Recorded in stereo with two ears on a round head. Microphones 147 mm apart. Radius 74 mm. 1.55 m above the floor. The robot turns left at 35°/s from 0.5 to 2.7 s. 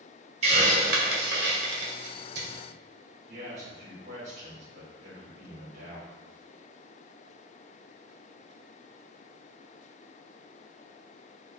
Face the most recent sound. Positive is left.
turn(degrees=-45)  # may be behind; listen again after turning